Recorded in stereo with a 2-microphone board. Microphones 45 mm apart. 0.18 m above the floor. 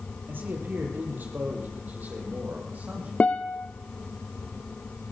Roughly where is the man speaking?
Right.